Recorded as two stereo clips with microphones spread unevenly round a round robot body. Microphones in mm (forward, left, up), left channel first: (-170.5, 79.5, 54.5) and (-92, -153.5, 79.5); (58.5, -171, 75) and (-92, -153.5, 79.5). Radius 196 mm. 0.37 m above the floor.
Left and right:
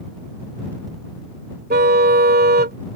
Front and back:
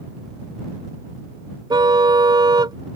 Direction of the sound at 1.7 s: 125° right.